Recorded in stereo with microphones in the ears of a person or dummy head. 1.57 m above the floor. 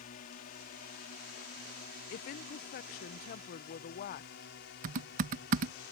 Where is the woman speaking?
45° left (ahead or behind).